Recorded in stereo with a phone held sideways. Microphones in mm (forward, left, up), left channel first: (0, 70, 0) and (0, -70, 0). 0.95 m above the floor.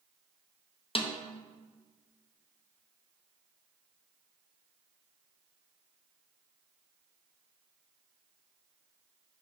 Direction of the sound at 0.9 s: 40° left (ahead or behind).